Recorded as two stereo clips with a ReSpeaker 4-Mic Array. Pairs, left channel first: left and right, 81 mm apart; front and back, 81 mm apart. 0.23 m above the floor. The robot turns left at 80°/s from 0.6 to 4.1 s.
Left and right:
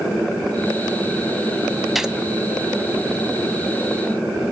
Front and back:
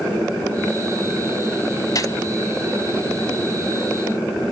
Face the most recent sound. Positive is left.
turn(degrees=-175)